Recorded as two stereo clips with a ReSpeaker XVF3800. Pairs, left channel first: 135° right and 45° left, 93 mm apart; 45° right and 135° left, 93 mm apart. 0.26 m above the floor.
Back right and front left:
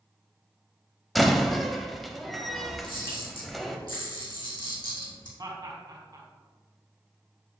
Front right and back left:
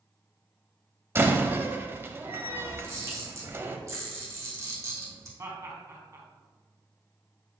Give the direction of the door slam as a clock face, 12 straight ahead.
7 o'clock.